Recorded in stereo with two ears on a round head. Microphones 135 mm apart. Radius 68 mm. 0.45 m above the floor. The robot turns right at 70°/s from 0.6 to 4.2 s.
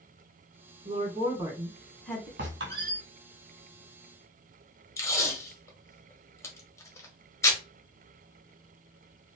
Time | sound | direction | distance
0.8 | a woman speaking | 80° right | 1.2 m
2.4 | a squeak | 95° right | 1.6 m
5.0 | tape being pulled | 20° left (ahead or behind) | 0.8 m